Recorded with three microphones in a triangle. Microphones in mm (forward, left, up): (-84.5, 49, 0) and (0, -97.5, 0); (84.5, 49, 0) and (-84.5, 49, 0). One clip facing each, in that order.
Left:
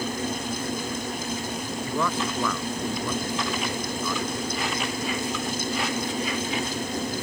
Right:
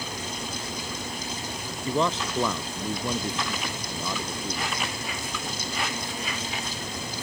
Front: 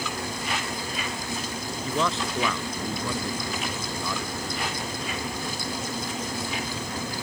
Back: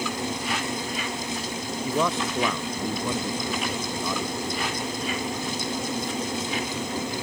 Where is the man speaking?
115° right.